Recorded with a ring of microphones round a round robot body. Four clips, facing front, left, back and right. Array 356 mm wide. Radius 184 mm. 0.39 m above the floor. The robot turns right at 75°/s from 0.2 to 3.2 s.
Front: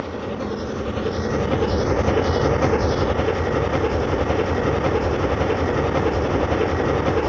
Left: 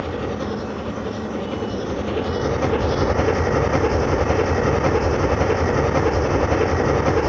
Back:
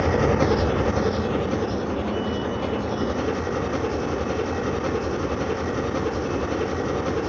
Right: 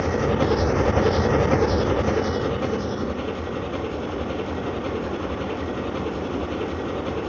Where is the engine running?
160° right, 0.7 m; by 7.3 s 65° left, 0.7 m.